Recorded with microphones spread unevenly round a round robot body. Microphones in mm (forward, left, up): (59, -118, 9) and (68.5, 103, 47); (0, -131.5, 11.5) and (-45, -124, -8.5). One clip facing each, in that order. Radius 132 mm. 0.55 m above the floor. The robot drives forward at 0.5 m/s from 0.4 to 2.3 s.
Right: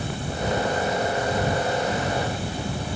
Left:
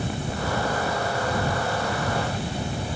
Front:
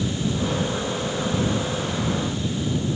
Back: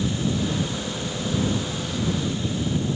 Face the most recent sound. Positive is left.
No sound to turn to.